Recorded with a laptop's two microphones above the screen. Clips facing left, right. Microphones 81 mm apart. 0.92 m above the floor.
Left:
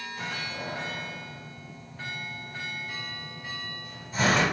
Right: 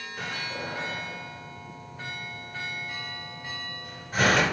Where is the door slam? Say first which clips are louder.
Right 2 dB; 60° right (ahead or behind), 2.5 m.